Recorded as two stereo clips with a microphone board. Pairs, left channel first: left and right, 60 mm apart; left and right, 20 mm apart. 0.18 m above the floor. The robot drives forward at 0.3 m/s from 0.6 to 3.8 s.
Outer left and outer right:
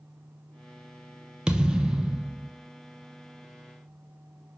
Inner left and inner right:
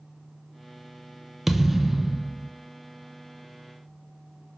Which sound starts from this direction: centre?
A thud, at 1.5 s.